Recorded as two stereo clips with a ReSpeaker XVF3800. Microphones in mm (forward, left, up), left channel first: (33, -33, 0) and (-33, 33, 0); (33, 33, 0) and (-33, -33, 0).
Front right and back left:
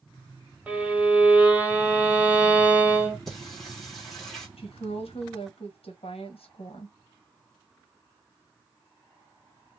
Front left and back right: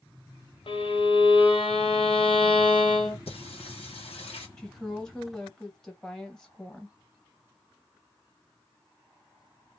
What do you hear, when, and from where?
0.7 s a violin: 60° left, 0.8 m
3.3 s singing: 45° left, 0.9 m
4.6 s a woman speaking: 40° right, 1.0 m